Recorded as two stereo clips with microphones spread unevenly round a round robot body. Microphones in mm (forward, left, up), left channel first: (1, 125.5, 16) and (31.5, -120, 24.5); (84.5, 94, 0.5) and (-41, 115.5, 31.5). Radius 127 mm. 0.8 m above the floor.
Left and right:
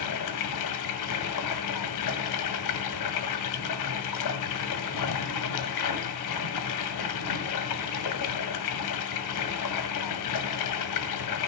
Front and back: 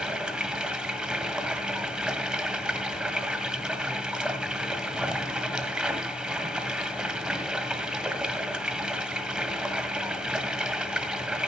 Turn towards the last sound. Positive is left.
turn(degrees=90)